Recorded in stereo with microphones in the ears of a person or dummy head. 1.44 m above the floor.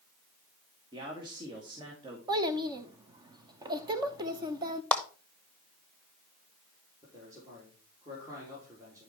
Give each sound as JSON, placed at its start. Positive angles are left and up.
{"t": 0.9, "sound": "a man speaking", "side_deg": -30, "distance_m": 2.0}
{"t": 2.3, "sound": "a child speaking", "side_deg": -20, "distance_m": 0.7}
{"t": 4.9, "sound": "a clap", "side_deg": 10, "distance_m": 1.0}
{"t": 7.0, "sound": "a man speaking", "side_deg": -20, "distance_m": 3.5}